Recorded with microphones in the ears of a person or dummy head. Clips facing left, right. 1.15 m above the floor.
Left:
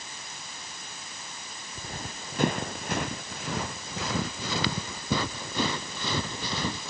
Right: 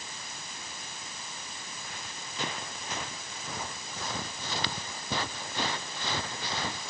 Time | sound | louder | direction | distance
1.8 | running footsteps | left 9 dB | 35° left (ahead or behind) | ?